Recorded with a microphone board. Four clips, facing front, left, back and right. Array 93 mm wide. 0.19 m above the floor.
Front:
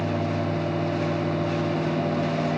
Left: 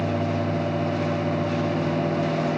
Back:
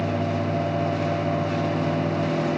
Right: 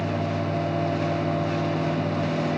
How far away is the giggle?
I don't hear a giggle.